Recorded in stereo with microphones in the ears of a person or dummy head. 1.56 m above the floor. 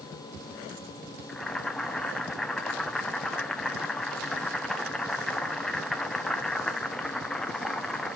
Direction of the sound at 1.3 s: 5° left (ahead or behind).